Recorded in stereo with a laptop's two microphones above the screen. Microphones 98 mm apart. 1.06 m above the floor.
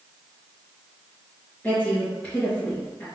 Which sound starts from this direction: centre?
A woman speaking, at 1.6 s.